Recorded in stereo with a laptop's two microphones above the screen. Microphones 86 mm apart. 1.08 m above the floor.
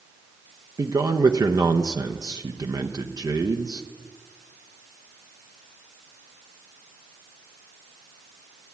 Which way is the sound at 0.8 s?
50° right (ahead or behind).